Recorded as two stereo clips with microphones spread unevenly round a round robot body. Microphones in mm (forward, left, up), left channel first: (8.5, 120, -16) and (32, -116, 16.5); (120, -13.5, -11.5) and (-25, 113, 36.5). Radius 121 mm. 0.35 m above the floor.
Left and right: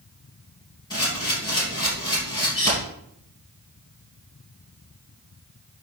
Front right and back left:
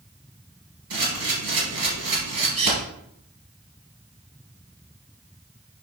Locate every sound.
0.9 s a camera shutter: 170° left, 3 m